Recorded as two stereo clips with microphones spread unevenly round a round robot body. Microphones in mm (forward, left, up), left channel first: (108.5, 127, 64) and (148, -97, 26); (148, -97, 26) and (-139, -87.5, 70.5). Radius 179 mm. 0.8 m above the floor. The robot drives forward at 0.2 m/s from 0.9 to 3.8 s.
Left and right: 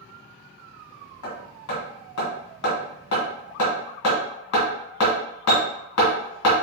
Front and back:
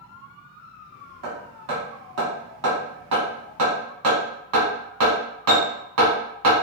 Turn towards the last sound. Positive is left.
turn(degrees=135)